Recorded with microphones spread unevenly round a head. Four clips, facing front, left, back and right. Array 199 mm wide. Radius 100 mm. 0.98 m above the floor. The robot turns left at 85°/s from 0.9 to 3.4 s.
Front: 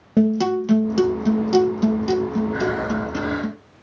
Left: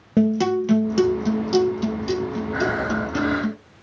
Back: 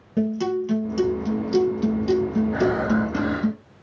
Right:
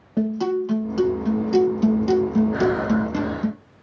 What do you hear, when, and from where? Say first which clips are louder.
0.2 s a guitar: left 3 dB, front 5 dB; 60° left, 1.4 m; by 3.5 s 150° right, 1.4 m
2.5 s breathing: right 3 dB, back 2 dB; 135° right, 3 m; by 3.5 s 150° left, 3 m